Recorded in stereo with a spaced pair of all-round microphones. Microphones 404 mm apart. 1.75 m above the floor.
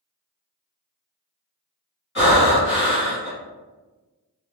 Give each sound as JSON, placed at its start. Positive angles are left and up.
{"t": 2.1, "sound": "breathing", "side_deg": 30, "distance_m": 1.3}